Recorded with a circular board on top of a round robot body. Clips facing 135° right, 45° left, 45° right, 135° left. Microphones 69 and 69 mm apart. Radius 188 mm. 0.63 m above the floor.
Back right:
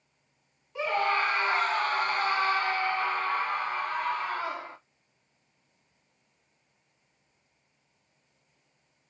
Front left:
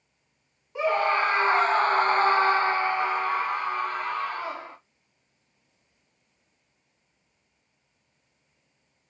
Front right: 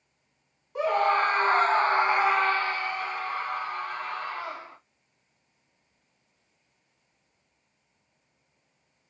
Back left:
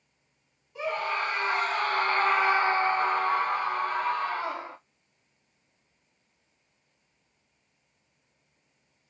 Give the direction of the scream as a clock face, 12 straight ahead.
1 o'clock.